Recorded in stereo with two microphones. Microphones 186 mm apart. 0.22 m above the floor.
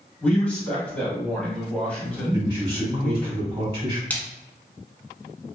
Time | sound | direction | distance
0.2 | a man speaking | 10° left (ahead or behind) | 1.0 m
2.3 | a man speaking | 30° right (ahead or behind) | 1.1 m
4.1 | a splash | 10° left (ahead or behind) | 0.7 m